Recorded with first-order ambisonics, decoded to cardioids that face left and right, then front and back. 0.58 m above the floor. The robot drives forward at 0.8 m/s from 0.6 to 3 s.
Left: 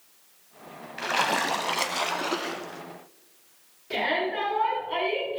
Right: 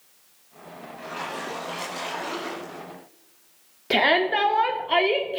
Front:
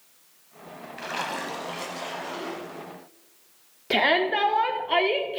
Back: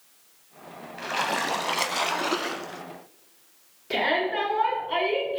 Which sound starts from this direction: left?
A splash, at 1.0 s.